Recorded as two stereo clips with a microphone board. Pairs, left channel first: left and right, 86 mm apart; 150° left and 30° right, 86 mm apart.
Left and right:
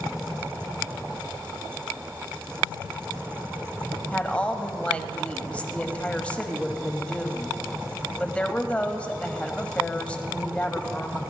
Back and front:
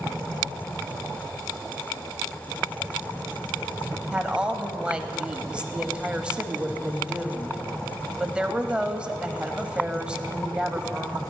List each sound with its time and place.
4.1 s a woman speaking: 35° left, 1.0 m